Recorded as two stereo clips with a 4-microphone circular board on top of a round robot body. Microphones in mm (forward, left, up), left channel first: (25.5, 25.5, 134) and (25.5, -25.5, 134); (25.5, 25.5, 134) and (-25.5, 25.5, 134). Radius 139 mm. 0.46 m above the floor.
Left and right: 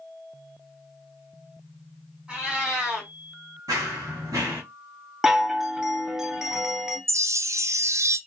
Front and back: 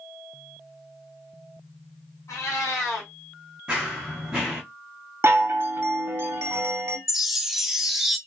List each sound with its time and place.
2.3 s a cat meowing: 15° right, 1.4 m
3.7 s running footsteps: 100° right, 0.5 m
5.2 s a chime: 170° right, 0.7 m
7.1 s a chime: 95° right, 0.5 m